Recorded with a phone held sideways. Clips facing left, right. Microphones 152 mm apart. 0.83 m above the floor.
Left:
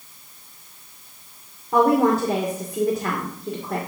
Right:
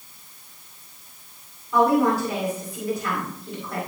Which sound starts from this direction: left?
A woman speaking, at 1.7 s.